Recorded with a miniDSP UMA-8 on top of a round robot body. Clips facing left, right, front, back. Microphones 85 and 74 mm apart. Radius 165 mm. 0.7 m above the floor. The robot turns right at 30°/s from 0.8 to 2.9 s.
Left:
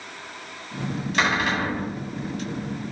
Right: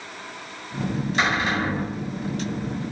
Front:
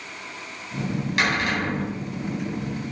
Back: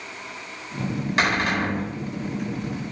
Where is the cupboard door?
120° left, 3.5 m; by 1.9 s 140° left, 3.5 m.